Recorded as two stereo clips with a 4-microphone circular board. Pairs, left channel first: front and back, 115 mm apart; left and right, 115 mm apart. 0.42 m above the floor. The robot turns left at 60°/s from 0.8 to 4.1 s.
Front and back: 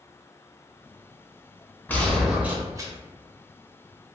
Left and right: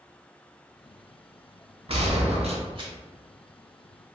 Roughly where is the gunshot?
Right.